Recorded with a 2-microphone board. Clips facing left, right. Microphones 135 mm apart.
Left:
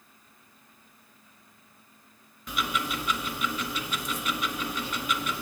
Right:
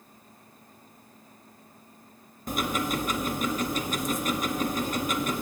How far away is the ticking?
About 0.6 m.